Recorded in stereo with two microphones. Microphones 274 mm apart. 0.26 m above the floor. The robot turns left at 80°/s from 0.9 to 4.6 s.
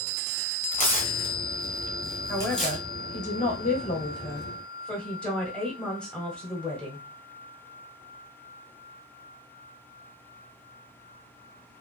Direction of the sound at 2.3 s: 5° right (ahead or behind).